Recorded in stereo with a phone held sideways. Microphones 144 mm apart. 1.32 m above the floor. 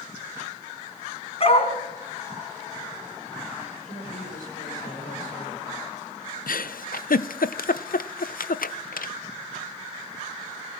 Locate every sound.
1.4 s a dog barking: 45° left (ahead or behind), 2.5 m
3.7 s a woman speaking: 70° left (ahead or behind), 5 m
6.5 s a giggle: 80° left, 0.5 m